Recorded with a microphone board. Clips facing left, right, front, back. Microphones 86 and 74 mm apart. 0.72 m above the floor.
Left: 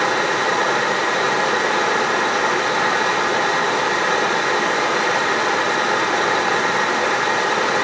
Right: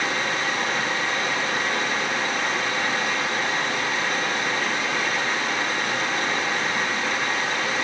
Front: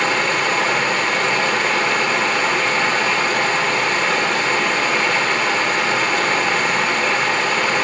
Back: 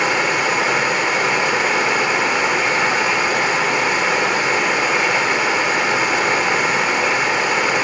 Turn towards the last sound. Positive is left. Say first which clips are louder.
# left 7 dB, back 1 dB
turn(degrees=105)